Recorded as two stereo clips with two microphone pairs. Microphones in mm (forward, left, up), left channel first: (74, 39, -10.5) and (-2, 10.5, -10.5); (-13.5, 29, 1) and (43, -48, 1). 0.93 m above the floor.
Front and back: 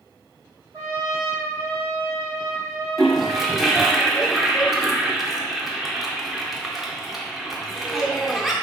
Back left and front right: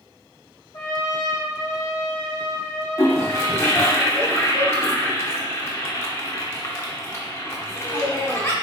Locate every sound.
0.7 s a trumpet: 160° left, 1.5 m
3.0 s a toilet flushing: 110° left, 0.5 m